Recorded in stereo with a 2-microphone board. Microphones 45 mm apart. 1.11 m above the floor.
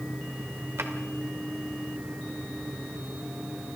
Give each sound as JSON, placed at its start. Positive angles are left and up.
{"t": 0.8, "sound": "a drawer", "side_deg": -65, "distance_m": 2.5}